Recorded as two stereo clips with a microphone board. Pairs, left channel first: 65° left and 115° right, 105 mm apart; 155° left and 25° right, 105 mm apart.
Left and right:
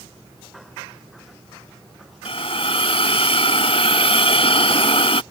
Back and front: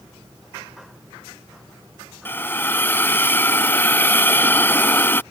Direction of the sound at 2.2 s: 90° left.